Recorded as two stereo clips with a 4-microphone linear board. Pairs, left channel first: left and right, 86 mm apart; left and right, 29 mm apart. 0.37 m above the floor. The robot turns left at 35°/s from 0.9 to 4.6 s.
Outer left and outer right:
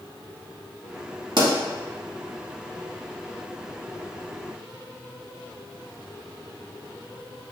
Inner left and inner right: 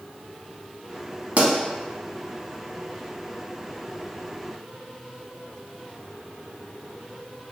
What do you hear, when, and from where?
1.4 s a pop: 60° right (ahead or behind), 0.7 m; by 1.5 s 65° right (ahead or behind), 0.7 m